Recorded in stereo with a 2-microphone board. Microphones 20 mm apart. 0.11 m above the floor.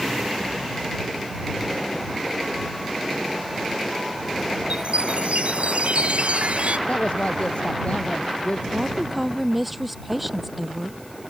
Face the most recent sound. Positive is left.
turn(degrees=0)  # may be behind; listen again after turning